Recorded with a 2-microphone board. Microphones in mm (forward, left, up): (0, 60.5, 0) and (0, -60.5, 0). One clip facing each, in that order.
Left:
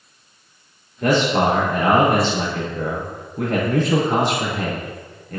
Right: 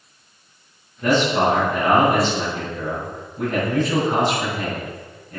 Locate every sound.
1.0 s a man speaking: 65° left (ahead or behind), 4.5 m